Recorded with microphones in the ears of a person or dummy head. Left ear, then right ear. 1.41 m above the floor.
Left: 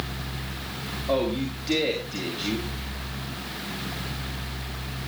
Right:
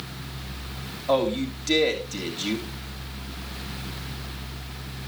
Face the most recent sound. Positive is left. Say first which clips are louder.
# right 3 dB
turn(degrees=-55)  # may be behind; listen again after turning